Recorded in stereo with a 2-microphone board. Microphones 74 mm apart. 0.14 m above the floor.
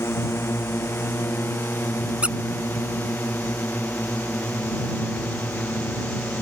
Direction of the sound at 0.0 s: 35° left (ahead or behind).